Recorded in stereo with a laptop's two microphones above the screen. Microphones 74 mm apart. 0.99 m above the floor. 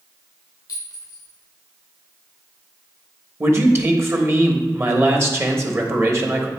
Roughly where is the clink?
Left.